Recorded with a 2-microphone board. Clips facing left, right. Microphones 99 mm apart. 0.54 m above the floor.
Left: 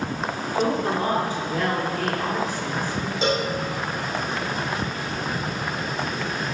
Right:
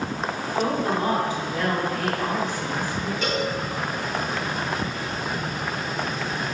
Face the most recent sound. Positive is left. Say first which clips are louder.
# left 3 dB
turn(degrees=25)  # may be behind; listen again after turning